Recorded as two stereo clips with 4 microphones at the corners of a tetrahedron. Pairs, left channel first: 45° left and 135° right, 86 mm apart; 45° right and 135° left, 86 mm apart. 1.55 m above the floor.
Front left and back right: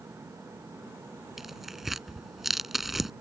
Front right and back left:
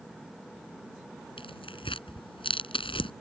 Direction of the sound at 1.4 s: 50° right.